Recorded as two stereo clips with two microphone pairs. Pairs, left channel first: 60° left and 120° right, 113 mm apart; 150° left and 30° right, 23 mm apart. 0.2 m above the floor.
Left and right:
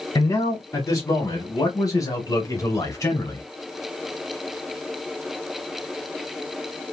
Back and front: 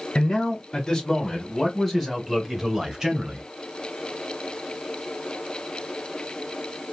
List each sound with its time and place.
0.1 s a man speaking: 110° left, 1.7 m; by 3.4 s 5° left, 1.5 m